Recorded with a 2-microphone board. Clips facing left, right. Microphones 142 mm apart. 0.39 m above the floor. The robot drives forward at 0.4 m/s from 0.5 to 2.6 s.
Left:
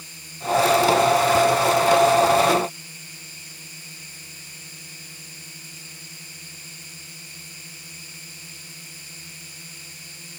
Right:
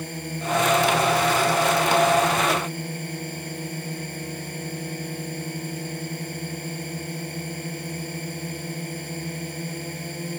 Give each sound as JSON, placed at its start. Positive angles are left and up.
{"t": 0.0, "sound": "a drone", "side_deg": -60}